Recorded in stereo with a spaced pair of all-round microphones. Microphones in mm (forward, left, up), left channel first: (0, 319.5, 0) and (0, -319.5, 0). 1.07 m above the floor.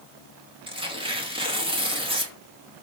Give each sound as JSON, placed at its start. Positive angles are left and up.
{"t": 0.7, "sound": "tearing paper", "side_deg": -10, "distance_m": 2.5}